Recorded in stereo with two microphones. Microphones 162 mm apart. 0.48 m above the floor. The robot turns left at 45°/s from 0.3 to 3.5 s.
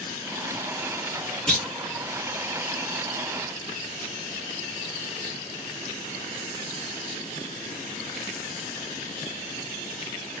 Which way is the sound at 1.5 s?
5° left (ahead or behind).